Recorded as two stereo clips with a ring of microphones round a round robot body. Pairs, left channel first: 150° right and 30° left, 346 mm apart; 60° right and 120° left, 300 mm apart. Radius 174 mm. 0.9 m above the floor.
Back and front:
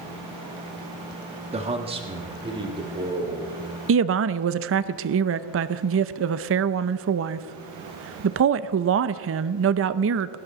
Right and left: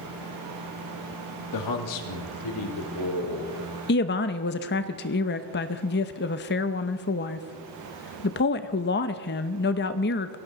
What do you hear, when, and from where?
1.5 s a man speaking: 40° right, 1.6 m; by 3.8 s 50° right, 4 m
3.9 s a woman speaking: 10° right, 0.7 m